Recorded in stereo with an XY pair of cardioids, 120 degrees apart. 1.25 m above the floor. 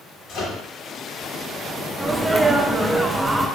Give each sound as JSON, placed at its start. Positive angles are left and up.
{"t": 0.3, "sound": "a microwave", "azimuth_deg": 70, "distance_m": 1.4}
{"t": 2.0, "sound": "a sneeze", "azimuth_deg": -10, "distance_m": 0.6}